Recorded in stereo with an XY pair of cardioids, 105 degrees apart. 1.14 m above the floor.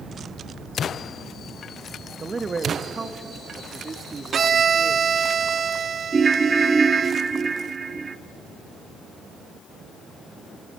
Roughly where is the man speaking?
Ahead right.